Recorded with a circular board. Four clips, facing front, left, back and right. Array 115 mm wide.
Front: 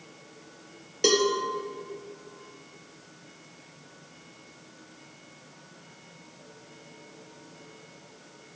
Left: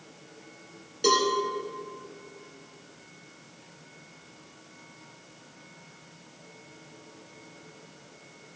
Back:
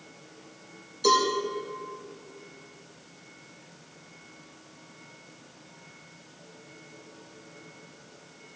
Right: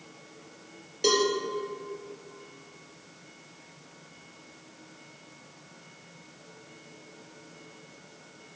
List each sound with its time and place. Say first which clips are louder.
1.0 s a cowbell: left 1 dB, back 1 dB; straight ahead, 2.5 m